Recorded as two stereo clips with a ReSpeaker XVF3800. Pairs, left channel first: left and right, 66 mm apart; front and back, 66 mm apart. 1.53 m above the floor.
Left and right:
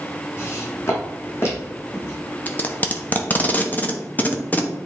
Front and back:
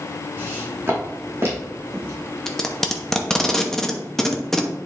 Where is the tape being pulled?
75° left, 0.9 m.